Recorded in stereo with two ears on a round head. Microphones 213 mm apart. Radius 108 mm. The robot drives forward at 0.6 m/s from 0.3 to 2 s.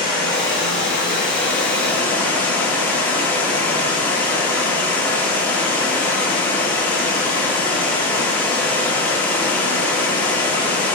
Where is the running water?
5° left (ahead or behind), 1.7 m.